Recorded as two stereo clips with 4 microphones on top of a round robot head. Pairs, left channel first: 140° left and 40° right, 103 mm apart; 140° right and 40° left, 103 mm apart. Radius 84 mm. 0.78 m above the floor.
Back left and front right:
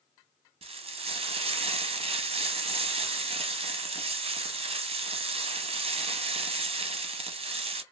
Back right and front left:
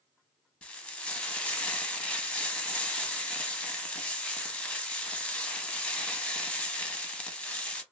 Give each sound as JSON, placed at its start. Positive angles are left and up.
{"t": 0.6, "sound": "frying", "azimuth_deg": -60, "distance_m": 0.7}